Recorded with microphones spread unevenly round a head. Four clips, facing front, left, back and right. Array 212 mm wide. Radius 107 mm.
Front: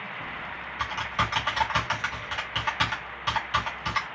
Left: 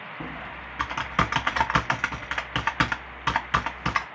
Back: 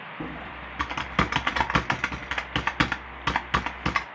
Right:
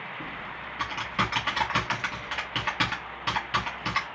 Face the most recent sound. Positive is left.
turn(degrees=165)